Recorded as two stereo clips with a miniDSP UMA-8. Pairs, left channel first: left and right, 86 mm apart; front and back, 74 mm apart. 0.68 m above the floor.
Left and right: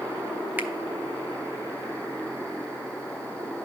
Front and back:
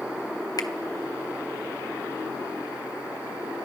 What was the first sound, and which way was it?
A finger snap, 25° right.